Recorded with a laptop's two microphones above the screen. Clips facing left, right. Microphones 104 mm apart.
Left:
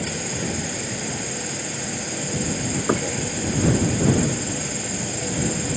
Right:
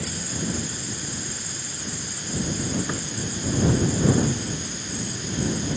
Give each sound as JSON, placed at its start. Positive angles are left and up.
{"t": 0.0, "sound": "an insect", "side_deg": 85}
{"t": 2.9, "sound": "knocking", "side_deg": 50}